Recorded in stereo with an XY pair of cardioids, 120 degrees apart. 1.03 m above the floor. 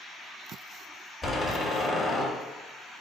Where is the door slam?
20° left, 1.5 m.